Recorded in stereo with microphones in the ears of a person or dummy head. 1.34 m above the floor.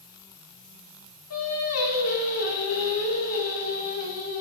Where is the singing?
80° left, 2.5 m.